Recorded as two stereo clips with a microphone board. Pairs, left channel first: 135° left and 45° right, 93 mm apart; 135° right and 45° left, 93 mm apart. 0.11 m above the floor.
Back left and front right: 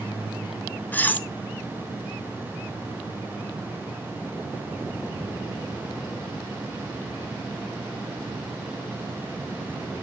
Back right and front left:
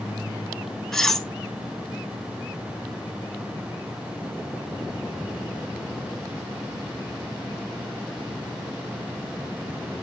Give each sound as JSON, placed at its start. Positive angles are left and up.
{"t": 0.9, "sound": "cutlery clinking", "azimuth_deg": 150, "distance_m": 0.7}